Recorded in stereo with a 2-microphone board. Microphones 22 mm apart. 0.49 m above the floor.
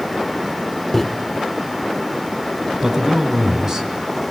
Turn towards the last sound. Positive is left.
turn(degrees=-35)  # may be behind; listen again after turning